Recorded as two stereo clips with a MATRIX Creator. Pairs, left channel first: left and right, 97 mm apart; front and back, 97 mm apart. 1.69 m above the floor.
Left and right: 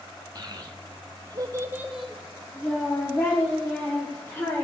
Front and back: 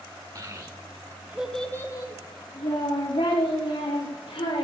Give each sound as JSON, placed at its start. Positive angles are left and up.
{"t": 0.3, "sound": "a child speaking", "azimuth_deg": -135, "distance_m": 2.0}